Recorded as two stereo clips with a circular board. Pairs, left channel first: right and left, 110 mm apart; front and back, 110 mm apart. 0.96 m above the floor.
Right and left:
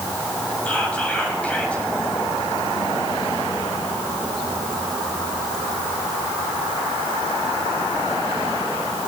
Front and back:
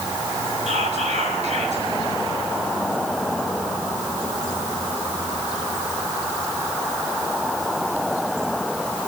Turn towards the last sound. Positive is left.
turn(degrees=-170)